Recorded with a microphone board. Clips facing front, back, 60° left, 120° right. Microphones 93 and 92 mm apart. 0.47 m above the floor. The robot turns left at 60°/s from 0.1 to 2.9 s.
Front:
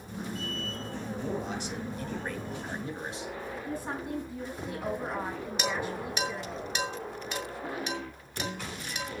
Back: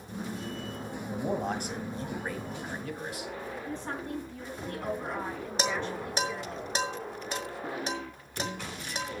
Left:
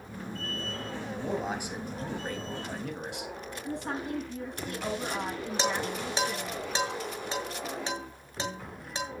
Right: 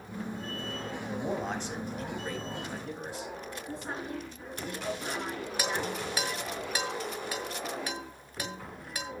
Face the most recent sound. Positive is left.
turn(degrees=125)